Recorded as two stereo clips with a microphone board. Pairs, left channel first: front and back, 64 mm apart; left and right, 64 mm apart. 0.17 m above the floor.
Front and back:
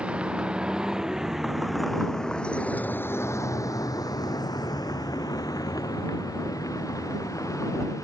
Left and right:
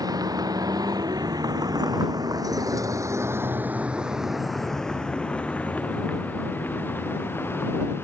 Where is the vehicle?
105° right; by 8.0 s 35° left.